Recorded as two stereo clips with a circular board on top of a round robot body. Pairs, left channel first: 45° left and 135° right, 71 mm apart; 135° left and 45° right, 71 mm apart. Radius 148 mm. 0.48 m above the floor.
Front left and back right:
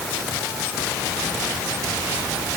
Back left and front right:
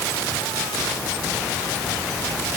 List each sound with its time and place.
Only background noise.